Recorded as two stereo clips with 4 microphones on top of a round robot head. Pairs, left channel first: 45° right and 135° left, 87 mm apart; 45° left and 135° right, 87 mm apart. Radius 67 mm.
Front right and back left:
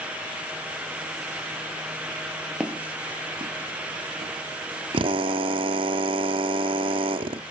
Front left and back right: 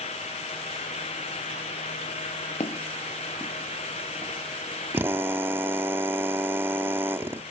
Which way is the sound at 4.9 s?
160° left.